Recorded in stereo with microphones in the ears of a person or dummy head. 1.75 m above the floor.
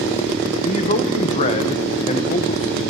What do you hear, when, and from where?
0.6 s a man speaking: 35° left (ahead or behind), 1.3 m